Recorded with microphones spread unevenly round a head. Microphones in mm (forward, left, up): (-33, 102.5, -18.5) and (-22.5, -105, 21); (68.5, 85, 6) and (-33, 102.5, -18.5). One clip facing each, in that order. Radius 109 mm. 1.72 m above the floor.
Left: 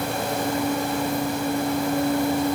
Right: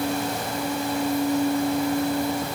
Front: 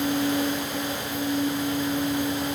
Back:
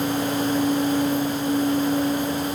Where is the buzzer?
No buzzer in this recording.